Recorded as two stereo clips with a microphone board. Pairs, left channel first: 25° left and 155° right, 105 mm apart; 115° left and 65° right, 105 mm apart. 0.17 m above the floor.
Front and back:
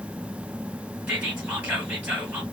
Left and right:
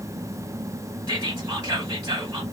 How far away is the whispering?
About 2 m.